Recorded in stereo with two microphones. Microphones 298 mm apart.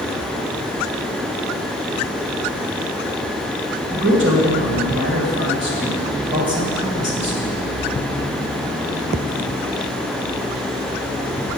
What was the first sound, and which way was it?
A man speaking, 40° right (ahead or behind).